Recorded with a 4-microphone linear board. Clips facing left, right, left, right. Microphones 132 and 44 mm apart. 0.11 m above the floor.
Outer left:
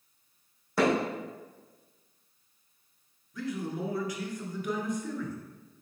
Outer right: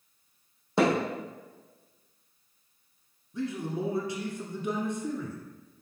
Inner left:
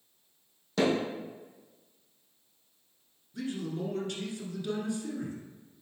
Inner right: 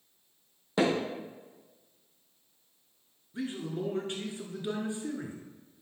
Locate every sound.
0.8 s hammering: 25° right (ahead or behind), 3 m
3.3 s a man speaking: 30° right (ahead or behind), 1.4 m